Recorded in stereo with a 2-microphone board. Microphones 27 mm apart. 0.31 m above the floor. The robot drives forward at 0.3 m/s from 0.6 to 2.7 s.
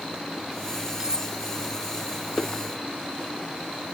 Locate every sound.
1.0 s cutlery clinking: 25° right (ahead or behind); by 1.3 s 30° right (ahead or behind)